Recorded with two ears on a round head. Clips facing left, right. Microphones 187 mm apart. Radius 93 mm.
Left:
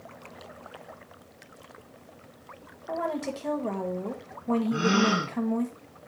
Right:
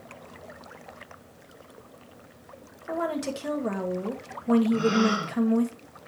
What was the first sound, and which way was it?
A woman speaking, 15° right (ahead or behind).